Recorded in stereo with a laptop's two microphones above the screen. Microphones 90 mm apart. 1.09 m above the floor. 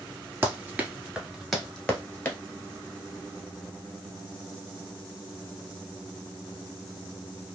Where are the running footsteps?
25° right (ahead or behind), 1.2 m; by 2.4 s 25° left (ahead or behind), 1.2 m.